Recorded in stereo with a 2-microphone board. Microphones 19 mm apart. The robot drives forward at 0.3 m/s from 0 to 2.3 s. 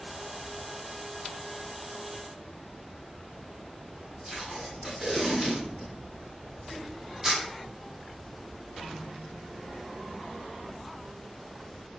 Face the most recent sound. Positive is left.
turn(degrees=-15)  # may be behind; listen again after turning